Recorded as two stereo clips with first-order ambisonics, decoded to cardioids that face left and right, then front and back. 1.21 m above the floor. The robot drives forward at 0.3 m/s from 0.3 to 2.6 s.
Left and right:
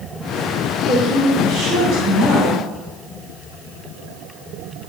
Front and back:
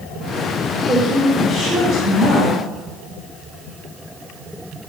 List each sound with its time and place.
0.9 s a woman speaking: 120° right, 4 m; by 2.7 s 130° right, 4 m